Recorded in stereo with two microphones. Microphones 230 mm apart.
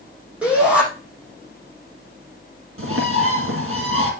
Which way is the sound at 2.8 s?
70° right (ahead or behind).